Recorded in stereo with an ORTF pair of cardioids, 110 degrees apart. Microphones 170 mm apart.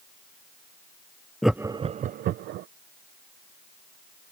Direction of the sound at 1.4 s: Straight ahead.